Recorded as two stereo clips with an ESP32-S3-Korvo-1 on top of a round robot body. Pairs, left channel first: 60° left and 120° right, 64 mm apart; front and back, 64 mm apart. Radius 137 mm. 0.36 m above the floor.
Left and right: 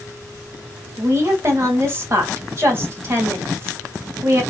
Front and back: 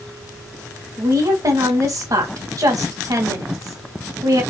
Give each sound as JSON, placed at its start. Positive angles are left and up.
{"t": 1.0, "sound": "a woman speaking", "azimuth_deg": -165, "distance_m": 1.8}